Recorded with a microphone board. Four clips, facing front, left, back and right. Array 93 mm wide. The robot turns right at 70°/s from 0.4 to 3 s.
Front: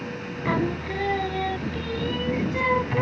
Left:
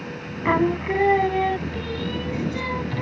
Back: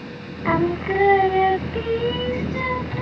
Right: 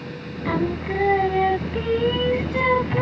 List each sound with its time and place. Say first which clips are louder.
0.5 s singing: left 3 dB, back 6 dB; 125° left; by 3.0 s 55° right